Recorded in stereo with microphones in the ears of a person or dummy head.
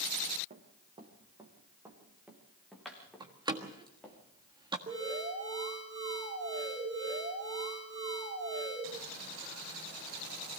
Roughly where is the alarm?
Right.